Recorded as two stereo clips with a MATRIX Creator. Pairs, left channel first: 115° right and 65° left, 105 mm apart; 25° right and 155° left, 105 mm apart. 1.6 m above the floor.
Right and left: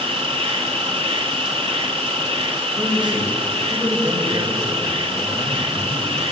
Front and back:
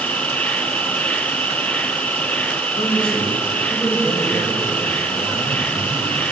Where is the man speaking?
20° left, 7 m.